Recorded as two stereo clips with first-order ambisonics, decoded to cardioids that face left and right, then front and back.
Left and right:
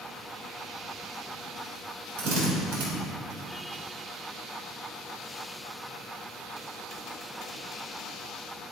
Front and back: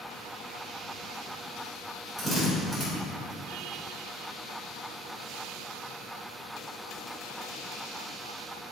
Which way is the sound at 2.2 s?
85° right.